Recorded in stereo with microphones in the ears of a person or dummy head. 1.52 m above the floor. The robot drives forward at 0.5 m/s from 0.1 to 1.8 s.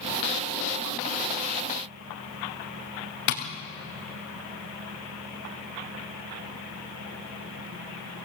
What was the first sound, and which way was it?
Tapping, 55° left (ahead or behind).